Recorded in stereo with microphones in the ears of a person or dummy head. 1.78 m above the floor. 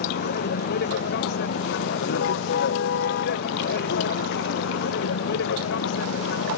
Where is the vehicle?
65° left (ahead or behind); by 6.6 s 75° left (ahead or behind).